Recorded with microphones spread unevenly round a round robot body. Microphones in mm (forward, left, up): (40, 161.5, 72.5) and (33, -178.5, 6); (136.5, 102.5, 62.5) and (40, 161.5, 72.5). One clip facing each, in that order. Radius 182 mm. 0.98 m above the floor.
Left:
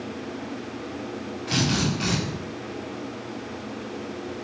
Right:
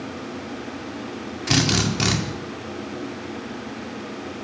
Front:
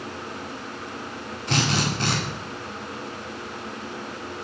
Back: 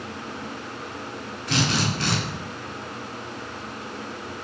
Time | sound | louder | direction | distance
1.5 | a drill | right 3 dB, even | 105° right | 2 m